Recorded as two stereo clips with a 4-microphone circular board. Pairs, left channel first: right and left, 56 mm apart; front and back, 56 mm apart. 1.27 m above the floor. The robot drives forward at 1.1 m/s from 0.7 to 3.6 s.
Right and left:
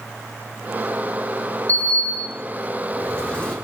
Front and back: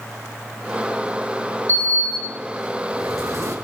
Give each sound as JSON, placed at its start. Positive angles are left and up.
{"t": 1.7, "sound": "a sliding door", "azimuth_deg": -145, "distance_m": 3.0}